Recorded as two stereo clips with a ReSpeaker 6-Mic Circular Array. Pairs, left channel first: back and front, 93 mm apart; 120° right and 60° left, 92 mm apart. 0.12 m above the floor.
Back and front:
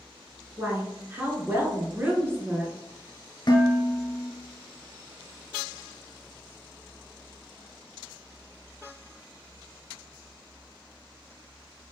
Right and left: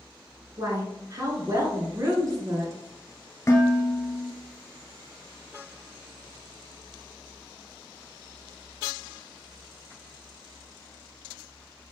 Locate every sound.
0.6 s a woman speaking: 55° left, 1.3 m
3.5 s dishes clattering: 170° right, 1.1 m